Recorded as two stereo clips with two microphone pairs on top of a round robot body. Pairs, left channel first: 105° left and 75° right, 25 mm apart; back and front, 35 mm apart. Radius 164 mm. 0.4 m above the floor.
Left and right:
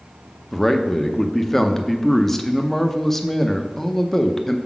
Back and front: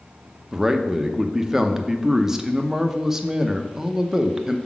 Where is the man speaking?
30° left, 0.9 m.